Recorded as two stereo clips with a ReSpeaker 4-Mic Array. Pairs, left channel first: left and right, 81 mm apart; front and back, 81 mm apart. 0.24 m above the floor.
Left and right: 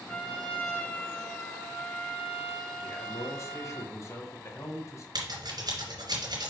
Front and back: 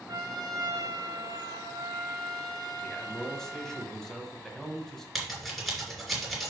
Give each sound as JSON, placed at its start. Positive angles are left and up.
{"t": 0.1, "sound": "a trumpet", "azimuth_deg": 160, "distance_m": 1.4}
{"t": 2.8, "sound": "a man speaking", "azimuth_deg": 80, "distance_m": 1.4}
{"t": 5.2, "sound": "scissors", "azimuth_deg": -90, "distance_m": 2.5}